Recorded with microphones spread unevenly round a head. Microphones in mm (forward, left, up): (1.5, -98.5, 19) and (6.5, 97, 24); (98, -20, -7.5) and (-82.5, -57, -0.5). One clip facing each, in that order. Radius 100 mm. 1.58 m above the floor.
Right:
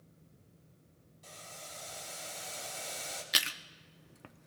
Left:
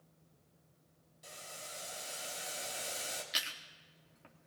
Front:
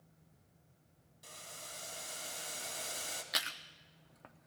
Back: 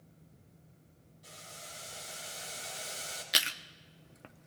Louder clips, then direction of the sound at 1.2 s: Even, back 1 dB; 15° left.